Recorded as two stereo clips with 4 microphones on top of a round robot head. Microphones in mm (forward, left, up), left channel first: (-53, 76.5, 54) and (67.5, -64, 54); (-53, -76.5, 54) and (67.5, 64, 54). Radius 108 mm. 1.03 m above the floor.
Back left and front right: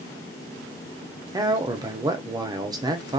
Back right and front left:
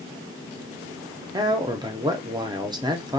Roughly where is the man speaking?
Ahead.